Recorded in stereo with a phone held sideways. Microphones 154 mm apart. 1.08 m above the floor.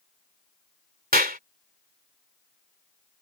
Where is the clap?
75° right (ahead or behind).